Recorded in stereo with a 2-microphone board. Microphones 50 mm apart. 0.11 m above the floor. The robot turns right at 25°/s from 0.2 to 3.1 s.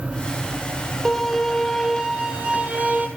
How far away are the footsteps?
No footsteps in this recording.